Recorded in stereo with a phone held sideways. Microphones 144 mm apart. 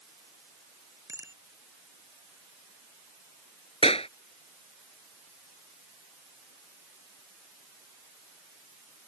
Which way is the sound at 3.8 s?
40° left (ahead or behind).